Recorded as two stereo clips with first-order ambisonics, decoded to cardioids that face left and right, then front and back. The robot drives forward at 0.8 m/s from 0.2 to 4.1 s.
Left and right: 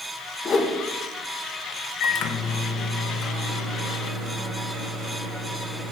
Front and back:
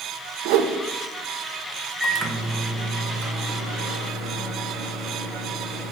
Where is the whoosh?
155° left, 0.7 m; by 0.7 s 160° left, 0.9 m.